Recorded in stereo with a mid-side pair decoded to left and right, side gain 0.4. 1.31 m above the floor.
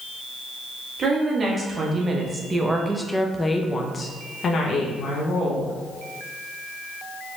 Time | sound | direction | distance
1.0 | a woman speaking | 50° right | 1.7 m